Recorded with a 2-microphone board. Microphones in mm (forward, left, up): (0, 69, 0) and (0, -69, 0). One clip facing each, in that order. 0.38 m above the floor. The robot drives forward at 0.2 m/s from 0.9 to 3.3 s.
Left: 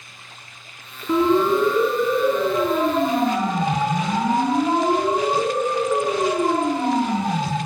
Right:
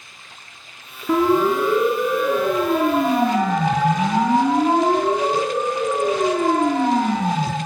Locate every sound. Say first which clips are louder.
1.1 s a siren: even; 65° right (ahead or behind), 4.5 m; by 7.6 s 75° right (ahead or behind), 7.5 m